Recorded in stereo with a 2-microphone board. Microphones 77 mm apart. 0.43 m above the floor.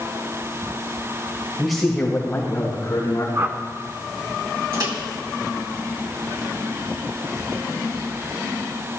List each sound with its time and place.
1.6 s a man speaking: 5° right (ahead or behind), 1.5 m; by 3.2 s 40° left (ahead or behind), 3 m
3.4 s a whoosh: 35° right (ahead or behind), 0.9 m
4.7 s a microwave: 55° right (ahead or behind), 1.6 m